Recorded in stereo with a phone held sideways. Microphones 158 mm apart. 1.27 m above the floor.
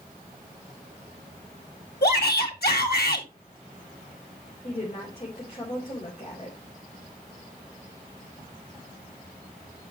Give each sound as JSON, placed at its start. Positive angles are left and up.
{"t": 2.0, "sound": "a shout", "side_deg": 85, "distance_m": 2.5}
{"t": 4.6, "sound": "a woman speaking", "side_deg": 45, "distance_m": 4.0}